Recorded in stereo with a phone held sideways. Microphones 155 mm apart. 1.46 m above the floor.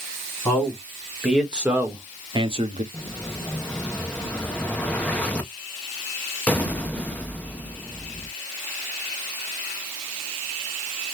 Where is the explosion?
10° left (ahead or behind), 0.8 m.